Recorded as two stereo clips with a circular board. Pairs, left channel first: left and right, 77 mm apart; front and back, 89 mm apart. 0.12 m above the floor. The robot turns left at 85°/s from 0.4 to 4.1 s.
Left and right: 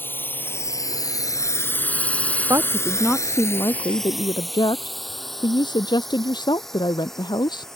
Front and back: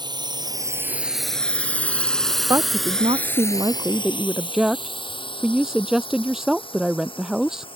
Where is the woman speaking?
130° right; by 7.7 s 95° left.